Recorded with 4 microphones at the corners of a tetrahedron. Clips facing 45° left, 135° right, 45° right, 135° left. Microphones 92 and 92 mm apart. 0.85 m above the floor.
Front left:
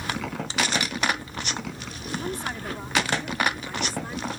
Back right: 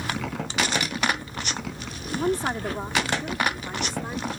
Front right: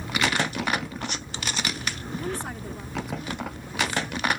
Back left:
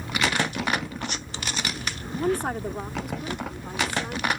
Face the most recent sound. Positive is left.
turn(degrees=155)